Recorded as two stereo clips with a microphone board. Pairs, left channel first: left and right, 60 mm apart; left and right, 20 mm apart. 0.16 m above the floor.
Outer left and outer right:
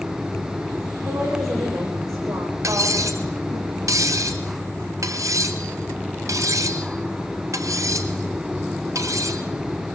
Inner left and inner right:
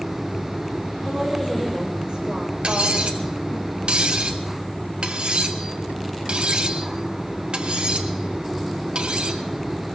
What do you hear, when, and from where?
1.1 s a woman speaking: 70° right (ahead or behind), 10 m; by 3.6 s 60° right (ahead or behind), 9 m
2.6 s cutlery clinking: 70° right (ahead or behind), 1.6 m